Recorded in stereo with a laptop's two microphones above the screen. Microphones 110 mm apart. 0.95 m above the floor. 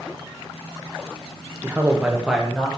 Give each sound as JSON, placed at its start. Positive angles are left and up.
{"t": 1.6, "sound": "a man speaking", "side_deg": -20, "distance_m": 0.5}